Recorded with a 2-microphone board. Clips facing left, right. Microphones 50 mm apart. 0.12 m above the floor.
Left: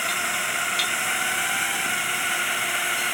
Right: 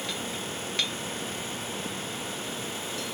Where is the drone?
70° left (ahead or behind); by 3.1 s 65° left (ahead or behind).